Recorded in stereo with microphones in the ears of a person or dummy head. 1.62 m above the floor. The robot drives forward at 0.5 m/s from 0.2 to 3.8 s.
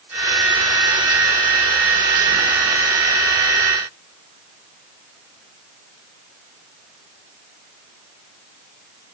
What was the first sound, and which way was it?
Only background noise.